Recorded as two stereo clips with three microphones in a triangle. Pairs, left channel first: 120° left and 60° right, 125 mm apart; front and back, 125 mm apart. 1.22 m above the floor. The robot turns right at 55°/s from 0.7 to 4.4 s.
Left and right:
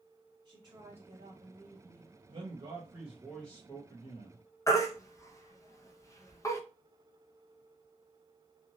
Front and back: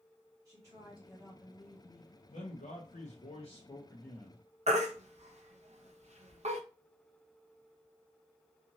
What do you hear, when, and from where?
0.5 s a woman speaking: 115° right, 1.3 m; by 2.2 s 35° right, 1.3 m
2.3 s a man speaking: 25° right, 0.8 m; by 4.4 s 90° left, 0.8 m
4.7 s a baby crying: straight behind, 0.6 m